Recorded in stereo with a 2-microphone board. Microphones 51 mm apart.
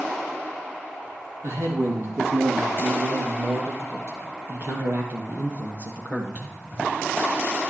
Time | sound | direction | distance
1.4 | a man speaking | 70° right (ahead or behind) | 4.5 m